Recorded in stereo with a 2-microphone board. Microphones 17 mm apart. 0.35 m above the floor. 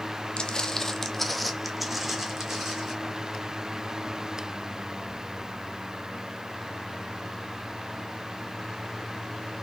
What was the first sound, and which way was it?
Footsteps, 50° left (ahead or behind).